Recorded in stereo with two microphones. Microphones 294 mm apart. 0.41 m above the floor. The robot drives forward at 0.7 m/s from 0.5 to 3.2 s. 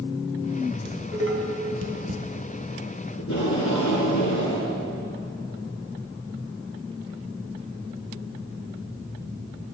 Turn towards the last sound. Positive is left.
turn(degrees=80)